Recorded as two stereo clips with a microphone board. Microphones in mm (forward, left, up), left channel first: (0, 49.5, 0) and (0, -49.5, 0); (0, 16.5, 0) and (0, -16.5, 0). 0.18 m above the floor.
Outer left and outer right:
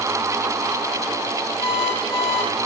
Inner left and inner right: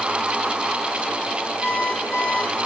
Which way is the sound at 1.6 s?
5° right (ahead or behind).